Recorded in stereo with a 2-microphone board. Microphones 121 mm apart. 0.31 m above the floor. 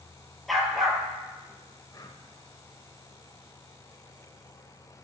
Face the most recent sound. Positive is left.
turn(degrees=35)  # may be behind; listen again after turning